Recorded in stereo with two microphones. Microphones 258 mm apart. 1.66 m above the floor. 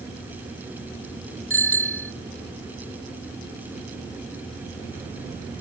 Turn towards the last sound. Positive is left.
turn(degrees=50)  # may be behind; listen again after turning